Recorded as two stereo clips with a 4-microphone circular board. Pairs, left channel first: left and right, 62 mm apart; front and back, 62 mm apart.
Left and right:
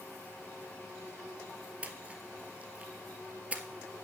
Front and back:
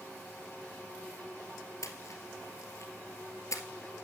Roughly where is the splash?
Ahead right.